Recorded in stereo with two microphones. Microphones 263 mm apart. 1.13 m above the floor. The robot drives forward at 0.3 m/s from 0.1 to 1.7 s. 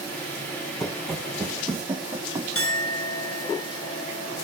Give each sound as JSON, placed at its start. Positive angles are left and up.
{"t": 0.8, "sound": "running footsteps", "side_deg": 0, "distance_m": 1.2}
{"t": 2.5, "sound": "a clink", "side_deg": 55, "distance_m": 1.5}